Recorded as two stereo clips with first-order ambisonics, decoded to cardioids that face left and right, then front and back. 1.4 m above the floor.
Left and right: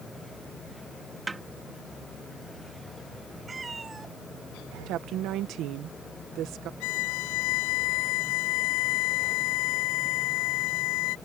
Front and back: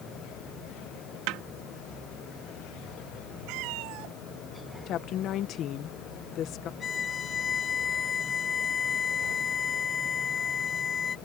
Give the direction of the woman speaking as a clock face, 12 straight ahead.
2 o'clock.